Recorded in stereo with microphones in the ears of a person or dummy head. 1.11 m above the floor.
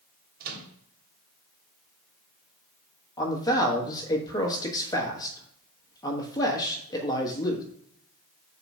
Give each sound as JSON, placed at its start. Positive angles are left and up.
{"t": 0.4, "sound": "a microwave", "side_deg": -50, "distance_m": 1.4}
{"t": 3.2, "sound": "a man speaking", "side_deg": 20, "distance_m": 1.2}